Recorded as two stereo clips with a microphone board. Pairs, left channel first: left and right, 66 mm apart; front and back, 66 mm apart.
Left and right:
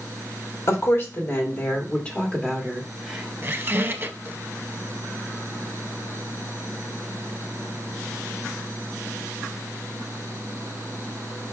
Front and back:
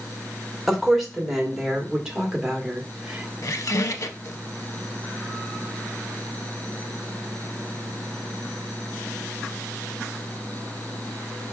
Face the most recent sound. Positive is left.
turn(degrees=-35)